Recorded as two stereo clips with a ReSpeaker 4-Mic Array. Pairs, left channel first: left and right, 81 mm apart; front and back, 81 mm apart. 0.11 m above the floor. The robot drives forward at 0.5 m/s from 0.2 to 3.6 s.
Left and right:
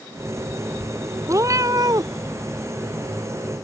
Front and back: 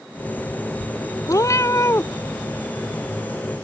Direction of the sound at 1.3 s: 45° right.